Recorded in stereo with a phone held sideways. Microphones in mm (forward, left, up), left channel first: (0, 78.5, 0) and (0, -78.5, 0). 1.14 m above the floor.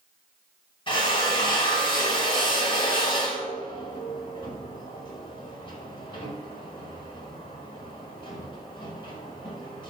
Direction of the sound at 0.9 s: 35° left (ahead or behind).